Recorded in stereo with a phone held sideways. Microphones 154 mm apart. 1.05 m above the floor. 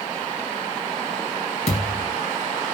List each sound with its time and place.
1.7 s a thud: 50° left (ahead or behind), 4.5 m